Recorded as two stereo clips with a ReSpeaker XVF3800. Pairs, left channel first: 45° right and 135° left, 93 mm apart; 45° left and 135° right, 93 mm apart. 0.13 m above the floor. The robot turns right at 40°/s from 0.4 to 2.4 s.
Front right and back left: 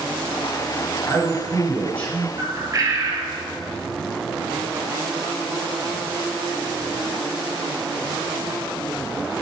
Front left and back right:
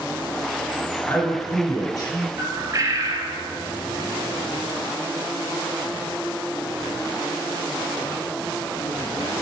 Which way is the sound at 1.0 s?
5° right.